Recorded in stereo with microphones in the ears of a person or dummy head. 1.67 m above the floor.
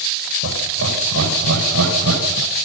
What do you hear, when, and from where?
0.4 s laughter: 70° right (ahead or behind), 8.5 m; by 2.5 s 75° right (ahead or behind), 9.5 m